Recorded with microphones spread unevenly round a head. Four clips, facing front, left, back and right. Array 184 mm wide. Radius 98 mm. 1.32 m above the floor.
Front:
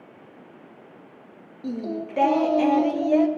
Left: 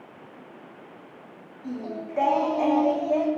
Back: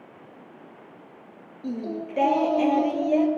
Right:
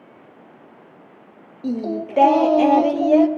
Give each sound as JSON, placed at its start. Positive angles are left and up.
{"t": 1.6, "sound": "singing", "azimuth_deg": -100, "distance_m": 0.6}